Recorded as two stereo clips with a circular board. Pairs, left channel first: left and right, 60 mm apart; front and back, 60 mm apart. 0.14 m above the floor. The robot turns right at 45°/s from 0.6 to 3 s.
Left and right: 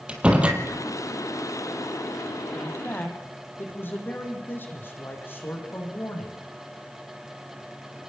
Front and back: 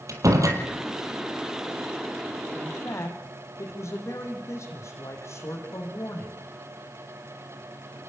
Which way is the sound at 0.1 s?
160° right.